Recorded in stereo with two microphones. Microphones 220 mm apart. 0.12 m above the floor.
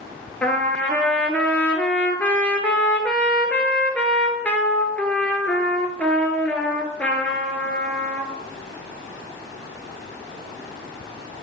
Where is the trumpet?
5° left (ahead or behind), 0.8 m.